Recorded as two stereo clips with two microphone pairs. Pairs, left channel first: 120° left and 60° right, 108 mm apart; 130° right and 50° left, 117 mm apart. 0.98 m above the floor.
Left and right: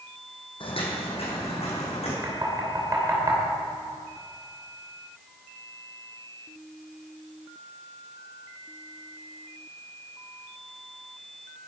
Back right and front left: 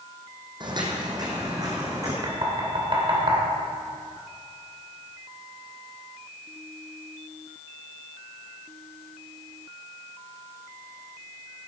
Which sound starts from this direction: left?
Footsteps, at 0.6 s.